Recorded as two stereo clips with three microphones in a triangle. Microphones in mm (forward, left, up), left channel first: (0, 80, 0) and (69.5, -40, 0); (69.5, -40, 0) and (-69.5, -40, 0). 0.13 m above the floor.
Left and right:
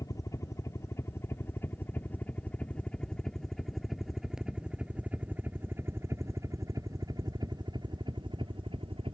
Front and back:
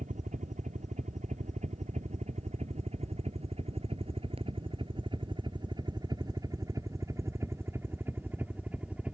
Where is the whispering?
I don't hear whispering.